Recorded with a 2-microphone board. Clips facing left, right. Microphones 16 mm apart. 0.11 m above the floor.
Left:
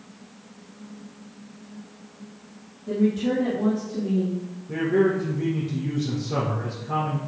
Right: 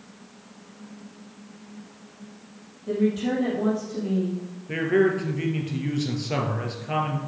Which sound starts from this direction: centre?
A woman speaking, at 2.9 s.